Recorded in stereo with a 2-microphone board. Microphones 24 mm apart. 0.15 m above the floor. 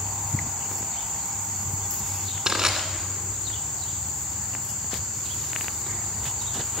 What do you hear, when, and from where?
2.5 s crushing: 20° right (ahead or behind), 2.0 m